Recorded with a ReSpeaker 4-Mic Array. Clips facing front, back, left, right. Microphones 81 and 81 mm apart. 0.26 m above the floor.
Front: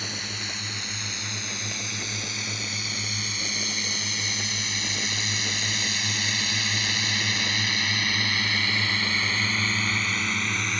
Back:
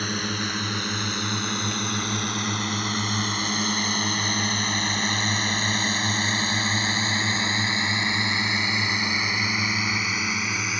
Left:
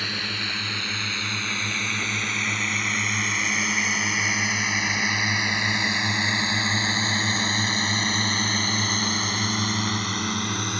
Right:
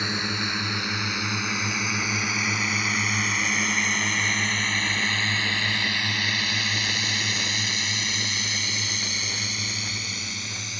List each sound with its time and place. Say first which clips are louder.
0.0 s a drone: back 8 dB, right 3 dB; 155° right; by 10.8 s 95° left